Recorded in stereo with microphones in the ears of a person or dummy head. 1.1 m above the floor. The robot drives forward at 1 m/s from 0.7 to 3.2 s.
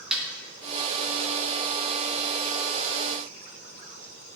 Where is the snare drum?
5° right (ahead or behind), 1.1 m.